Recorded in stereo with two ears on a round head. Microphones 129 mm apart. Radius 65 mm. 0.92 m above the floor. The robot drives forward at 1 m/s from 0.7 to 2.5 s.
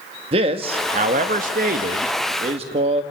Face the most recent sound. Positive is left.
turn(degrees=-45)  # may be behind; listen again after turning